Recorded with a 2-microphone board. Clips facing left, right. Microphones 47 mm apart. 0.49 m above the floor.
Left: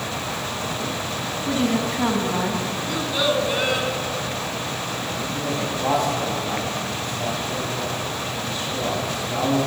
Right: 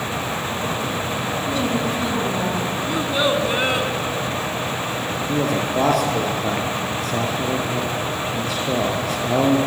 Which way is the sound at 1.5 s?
30° left (ahead or behind).